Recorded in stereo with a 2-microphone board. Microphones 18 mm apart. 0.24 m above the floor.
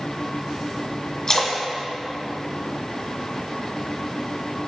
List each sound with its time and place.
1.3 s a splash: 25° left (ahead or behind), 1.6 m